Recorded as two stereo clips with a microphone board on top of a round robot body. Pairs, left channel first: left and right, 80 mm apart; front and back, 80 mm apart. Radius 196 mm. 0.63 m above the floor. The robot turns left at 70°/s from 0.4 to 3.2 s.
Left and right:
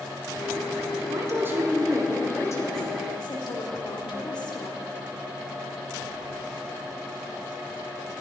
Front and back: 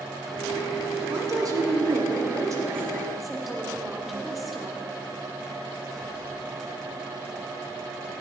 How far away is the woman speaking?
About 3 m.